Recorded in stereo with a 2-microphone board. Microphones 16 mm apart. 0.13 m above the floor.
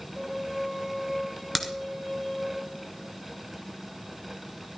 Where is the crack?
15° left (ahead or behind), 1.4 m.